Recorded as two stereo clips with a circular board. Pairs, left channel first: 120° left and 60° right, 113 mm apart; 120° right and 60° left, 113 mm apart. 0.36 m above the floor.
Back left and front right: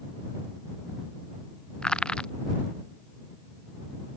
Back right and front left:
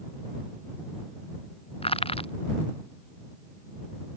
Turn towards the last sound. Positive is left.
turn(degrees=-160)